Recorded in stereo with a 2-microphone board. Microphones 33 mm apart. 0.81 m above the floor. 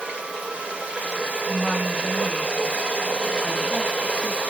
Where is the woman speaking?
45° right (ahead or behind), 6.5 m.